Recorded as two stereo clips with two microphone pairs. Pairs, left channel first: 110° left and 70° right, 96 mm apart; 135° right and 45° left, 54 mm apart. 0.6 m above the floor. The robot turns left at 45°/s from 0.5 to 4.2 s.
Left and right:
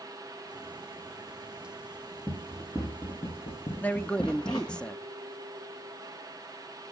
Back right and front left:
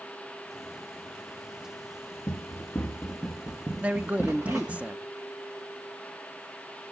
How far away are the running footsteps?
About 4 m.